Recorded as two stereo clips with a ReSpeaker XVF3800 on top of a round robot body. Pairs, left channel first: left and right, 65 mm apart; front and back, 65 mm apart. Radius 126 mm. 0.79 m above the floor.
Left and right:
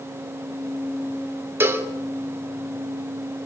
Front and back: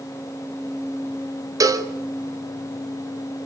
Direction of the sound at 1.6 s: 145° right.